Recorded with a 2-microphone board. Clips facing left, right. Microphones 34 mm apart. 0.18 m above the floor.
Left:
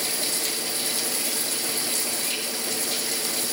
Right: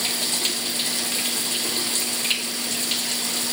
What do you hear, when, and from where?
0.0 s running water: 60° right (ahead or behind), 1.9 m